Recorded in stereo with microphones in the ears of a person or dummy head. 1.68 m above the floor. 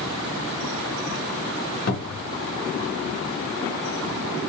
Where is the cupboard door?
55° left (ahead or behind), 0.9 m.